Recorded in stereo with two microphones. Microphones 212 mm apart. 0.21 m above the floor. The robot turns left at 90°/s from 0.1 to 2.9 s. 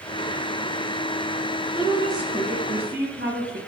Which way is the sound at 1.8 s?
35° left.